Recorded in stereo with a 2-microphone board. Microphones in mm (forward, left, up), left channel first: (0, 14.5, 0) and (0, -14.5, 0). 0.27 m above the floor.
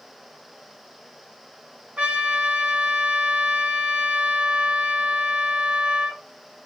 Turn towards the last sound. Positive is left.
turn(degrees=-60)  # may be behind; listen again after turning